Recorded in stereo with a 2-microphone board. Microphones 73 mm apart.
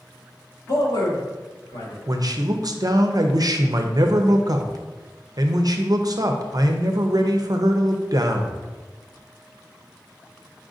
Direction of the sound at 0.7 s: 60° left (ahead or behind).